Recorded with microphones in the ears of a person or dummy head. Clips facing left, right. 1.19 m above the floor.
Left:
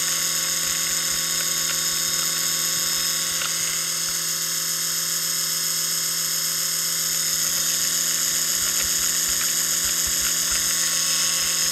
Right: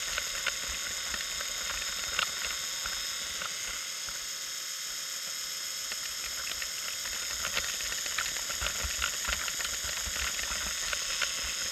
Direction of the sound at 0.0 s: 70° left (ahead or behind).